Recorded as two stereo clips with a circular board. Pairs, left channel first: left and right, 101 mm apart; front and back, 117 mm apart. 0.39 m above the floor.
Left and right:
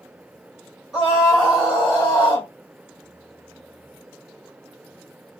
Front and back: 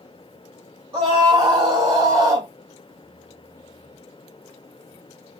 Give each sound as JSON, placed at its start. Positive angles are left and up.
{"t": 0.9, "sound": "a scream", "azimuth_deg": -175, "distance_m": 1.9}